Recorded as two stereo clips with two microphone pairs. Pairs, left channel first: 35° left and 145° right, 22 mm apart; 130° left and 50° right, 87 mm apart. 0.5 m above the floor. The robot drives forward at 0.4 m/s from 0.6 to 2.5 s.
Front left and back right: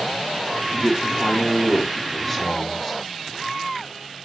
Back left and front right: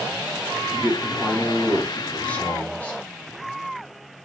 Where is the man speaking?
25° left, 1.0 m; by 3.0 s 160° left, 1.1 m.